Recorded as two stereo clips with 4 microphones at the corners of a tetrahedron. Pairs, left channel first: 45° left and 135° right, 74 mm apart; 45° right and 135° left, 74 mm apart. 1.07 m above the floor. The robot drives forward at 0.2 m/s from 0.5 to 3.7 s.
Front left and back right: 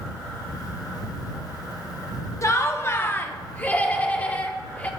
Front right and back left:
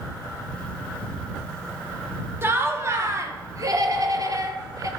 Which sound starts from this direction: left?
Laughter, at 2.4 s.